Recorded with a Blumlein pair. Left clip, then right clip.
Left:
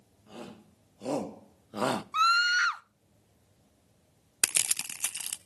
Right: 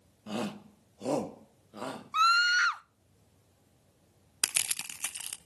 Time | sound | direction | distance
0.3 | a shout | 30° right | 1.5 m
2.1 | a scream | straight ahead | 0.6 m
4.4 | crushing | 15° left | 0.8 m